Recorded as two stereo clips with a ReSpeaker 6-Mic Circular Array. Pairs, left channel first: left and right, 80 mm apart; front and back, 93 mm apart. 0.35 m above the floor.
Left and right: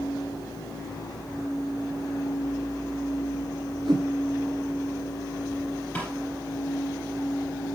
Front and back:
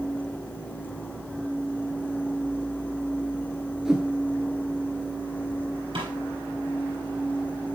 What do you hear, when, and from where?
3.9 s a whoosh: 95° right, 1.4 m
6.0 s a snare drum: 160° left, 4 m